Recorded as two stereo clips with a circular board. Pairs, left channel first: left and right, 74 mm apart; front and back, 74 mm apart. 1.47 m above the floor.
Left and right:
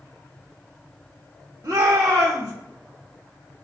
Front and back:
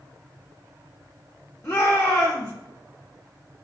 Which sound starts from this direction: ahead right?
A shout, at 1.6 s.